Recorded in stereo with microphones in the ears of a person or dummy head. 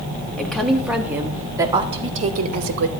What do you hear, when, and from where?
0.4 s a woman speaking: 5° left (ahead or behind), 1.9 m; by 2.9 s 60° right (ahead or behind), 1.2 m